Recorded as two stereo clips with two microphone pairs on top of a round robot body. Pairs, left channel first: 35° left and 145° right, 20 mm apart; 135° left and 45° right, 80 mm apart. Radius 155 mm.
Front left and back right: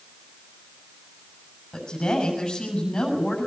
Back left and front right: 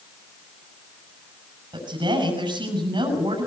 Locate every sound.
1.7 s a woman speaking: 25° right, 7.5 m